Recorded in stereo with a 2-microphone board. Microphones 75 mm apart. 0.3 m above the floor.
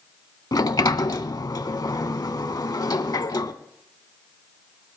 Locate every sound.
0.5 s a sliding door: 60° left (ahead or behind), 0.6 m